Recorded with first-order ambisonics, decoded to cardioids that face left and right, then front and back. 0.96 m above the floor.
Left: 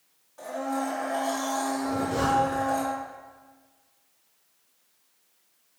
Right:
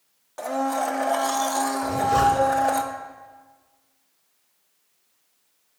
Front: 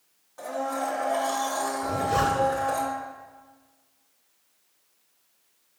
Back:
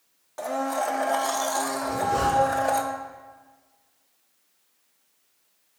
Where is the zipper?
75° right, 1.1 m.